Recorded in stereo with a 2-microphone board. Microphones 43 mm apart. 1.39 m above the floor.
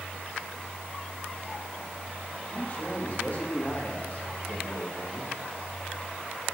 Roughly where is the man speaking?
Left.